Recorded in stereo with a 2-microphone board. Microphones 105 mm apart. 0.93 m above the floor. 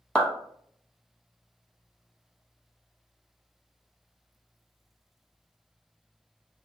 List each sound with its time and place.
0.1 s a clap: 10° left (ahead or behind), 0.9 m